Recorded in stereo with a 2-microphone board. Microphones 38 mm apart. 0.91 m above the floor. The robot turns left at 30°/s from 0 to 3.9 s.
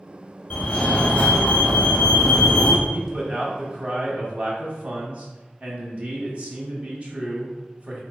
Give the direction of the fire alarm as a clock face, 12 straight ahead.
9 o'clock.